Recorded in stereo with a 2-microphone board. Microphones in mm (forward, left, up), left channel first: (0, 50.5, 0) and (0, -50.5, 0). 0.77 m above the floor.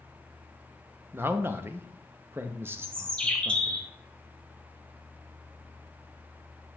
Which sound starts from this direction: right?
A man speaking, at 1.1 s.